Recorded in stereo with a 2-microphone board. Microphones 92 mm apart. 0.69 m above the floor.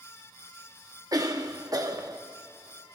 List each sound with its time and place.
1.1 s a cough: 40° right (ahead or behind), 1.0 m